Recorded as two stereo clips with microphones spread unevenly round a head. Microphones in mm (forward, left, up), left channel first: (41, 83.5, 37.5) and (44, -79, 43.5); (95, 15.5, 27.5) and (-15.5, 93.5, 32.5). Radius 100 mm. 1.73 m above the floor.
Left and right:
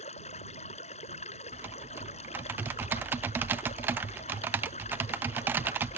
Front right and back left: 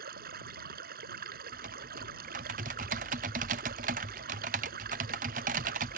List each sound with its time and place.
0.0 s running water: 150° left
1.5 s typing on a keyboard: 170° right